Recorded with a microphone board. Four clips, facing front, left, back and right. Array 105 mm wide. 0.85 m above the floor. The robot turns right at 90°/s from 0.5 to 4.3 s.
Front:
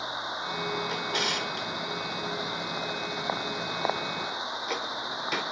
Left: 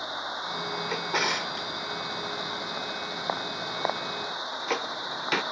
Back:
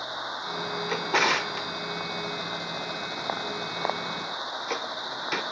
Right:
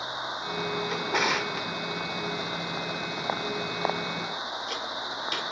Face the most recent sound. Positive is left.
turn(degrees=105)